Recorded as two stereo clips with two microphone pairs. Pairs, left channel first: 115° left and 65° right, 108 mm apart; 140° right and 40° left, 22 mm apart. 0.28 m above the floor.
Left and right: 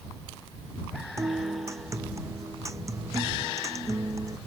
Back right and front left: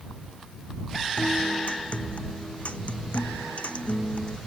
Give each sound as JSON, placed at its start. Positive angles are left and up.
{"t": 1.2, "sound": "a guitar", "azimuth_deg": -125}